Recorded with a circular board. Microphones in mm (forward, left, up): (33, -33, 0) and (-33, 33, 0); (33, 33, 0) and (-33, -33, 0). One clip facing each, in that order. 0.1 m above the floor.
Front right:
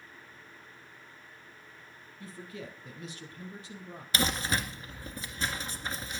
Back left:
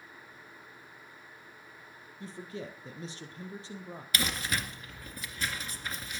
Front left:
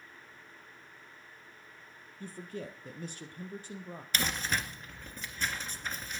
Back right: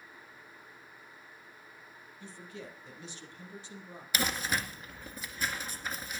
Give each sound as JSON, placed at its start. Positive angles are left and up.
{"t": 2.2, "sound": "a man speaking", "azimuth_deg": 80, "distance_m": 3.0}
{"t": 4.1, "sound": "crumpling", "azimuth_deg": -65, "distance_m": 1.9}